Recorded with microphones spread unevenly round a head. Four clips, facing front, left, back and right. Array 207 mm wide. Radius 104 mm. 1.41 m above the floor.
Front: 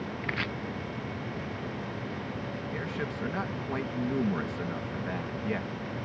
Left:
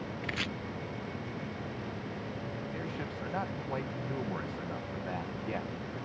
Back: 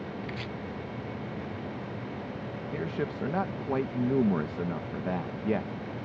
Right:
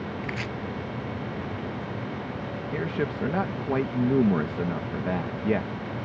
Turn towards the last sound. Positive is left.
turn(degrees=-100)